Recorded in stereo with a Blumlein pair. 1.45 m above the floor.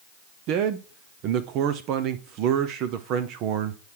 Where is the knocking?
I don't hear knocking.